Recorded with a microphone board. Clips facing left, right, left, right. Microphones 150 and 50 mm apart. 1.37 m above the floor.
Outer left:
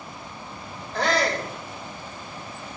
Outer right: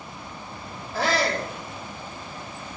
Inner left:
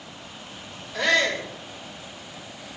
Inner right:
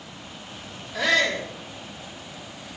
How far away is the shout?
About 4 m.